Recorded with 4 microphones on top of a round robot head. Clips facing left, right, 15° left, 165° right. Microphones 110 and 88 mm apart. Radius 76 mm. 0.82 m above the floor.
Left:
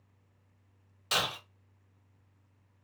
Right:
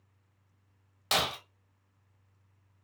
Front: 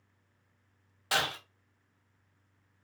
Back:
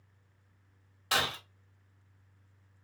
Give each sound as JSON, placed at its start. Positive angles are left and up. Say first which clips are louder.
{"t": 1.1, "sound": "breaking glass", "louder": "right 3 dB, even", "azimuth_deg": -65, "distance_m": 1.3}